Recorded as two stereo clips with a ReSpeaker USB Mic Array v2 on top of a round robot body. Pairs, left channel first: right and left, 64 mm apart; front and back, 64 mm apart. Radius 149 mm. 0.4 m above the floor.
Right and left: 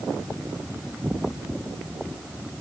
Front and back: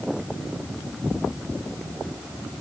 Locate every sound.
Only background noise.